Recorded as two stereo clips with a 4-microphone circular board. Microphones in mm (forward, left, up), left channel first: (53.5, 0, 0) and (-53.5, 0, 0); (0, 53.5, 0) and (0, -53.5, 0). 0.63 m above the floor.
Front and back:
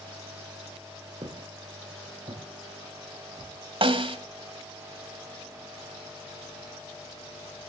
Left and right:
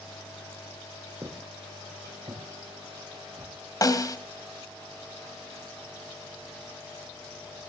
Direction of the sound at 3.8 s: 145° left.